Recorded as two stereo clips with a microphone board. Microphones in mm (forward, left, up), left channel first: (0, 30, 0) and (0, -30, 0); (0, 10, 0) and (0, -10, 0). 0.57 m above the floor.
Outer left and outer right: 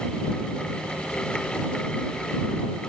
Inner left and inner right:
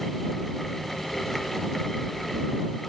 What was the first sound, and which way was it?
Only background noise.